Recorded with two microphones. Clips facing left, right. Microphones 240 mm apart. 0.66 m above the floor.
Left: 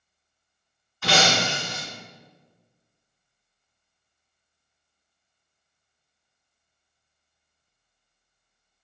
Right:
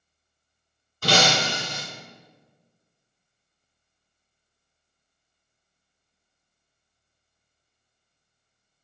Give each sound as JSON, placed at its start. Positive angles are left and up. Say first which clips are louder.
{"t": 1.0, "sound": "breaking glass", "louder": "right 1 dB", "side_deg": -40, "distance_m": 1.3}